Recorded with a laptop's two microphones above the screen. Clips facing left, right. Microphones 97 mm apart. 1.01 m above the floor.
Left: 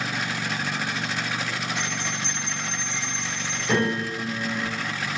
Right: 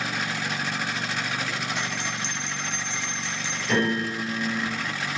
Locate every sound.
1.8 s a bell: 50° left (ahead or behind), 0.9 m
3.7 s a piano: 55° left (ahead or behind), 1.6 m